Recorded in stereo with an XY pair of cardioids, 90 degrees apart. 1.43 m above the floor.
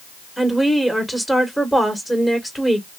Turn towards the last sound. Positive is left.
turn(degrees=5)